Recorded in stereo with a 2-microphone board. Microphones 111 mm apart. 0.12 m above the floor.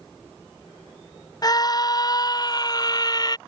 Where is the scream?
35° left (ahead or behind); by 3.4 s 40° left (ahead or behind).